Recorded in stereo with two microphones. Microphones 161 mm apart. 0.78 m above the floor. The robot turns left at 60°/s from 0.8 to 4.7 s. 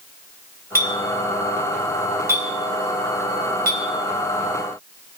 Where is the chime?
No chime in this recording.